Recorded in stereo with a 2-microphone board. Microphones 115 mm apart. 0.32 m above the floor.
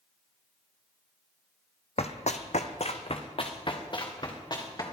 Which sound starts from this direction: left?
Running footsteps, at 2.0 s.